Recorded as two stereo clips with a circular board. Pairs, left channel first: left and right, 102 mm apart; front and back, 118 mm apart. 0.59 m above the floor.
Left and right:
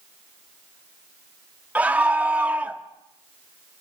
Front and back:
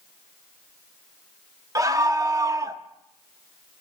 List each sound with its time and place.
1.8 s a scream: 150° right, 1.0 m